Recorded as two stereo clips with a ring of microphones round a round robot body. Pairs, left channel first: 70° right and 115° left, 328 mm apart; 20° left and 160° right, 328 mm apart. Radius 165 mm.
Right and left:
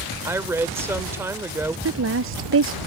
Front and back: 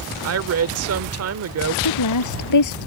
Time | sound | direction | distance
0.2 | a woman speaking | 170° right | ?
1.9 | a woman speaking | 60° left | ?